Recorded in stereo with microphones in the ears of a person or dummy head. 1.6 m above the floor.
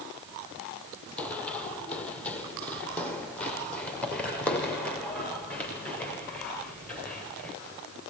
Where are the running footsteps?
10° left (ahead or behind), 3.5 m.